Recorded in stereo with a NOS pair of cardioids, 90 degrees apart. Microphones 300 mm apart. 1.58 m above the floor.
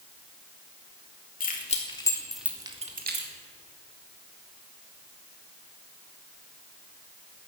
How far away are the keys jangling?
About 2.5 m.